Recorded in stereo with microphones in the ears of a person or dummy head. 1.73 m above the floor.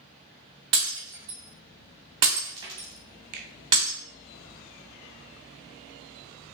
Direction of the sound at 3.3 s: 40° right (ahead or behind).